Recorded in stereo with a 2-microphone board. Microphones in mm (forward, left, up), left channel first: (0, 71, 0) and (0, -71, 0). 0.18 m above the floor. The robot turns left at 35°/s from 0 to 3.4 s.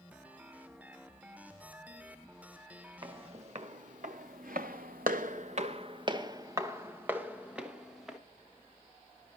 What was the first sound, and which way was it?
Footsteps, 35° right (ahead or behind).